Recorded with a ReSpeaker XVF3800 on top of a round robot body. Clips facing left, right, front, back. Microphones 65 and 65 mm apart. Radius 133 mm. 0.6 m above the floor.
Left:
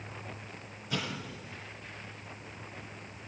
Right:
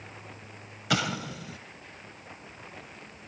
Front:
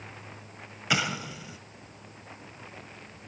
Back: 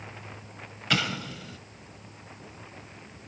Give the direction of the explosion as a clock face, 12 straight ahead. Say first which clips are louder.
Right 8 dB, even; 3 o'clock.